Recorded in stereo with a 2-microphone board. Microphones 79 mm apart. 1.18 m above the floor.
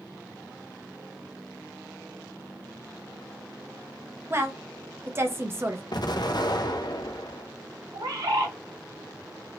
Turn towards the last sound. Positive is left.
turn(degrees=-55)  # may be behind; listen again after turning